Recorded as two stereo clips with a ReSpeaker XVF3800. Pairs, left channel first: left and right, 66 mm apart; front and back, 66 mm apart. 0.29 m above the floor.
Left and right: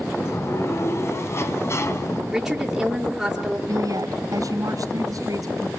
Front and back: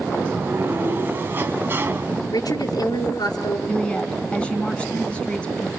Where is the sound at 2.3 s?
5° right, 4 m.